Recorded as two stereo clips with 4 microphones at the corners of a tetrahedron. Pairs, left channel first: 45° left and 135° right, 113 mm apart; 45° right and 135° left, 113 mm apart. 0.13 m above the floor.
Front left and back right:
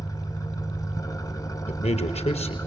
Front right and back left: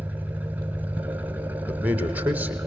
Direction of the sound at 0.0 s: 70° left.